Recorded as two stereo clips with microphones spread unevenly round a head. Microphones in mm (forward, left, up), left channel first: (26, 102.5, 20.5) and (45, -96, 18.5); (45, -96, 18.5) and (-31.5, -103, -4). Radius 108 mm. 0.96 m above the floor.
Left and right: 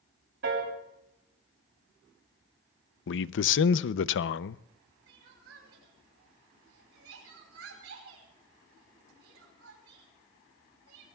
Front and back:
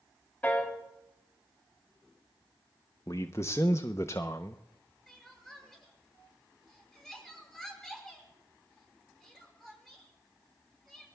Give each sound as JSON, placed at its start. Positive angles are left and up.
{"t": 0.4, "sound": "a piano", "azimuth_deg": -65, "distance_m": 3.5}
{"t": 3.1, "sound": "a man speaking", "azimuth_deg": 80, "distance_m": 0.5}
{"t": 5.1, "sound": "crying", "azimuth_deg": -80, "distance_m": 5.5}